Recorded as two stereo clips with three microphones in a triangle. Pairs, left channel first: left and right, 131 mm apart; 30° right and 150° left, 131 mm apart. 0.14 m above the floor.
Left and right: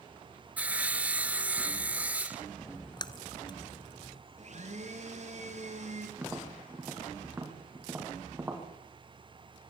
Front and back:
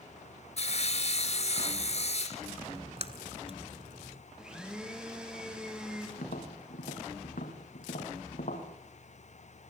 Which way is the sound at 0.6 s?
10° right.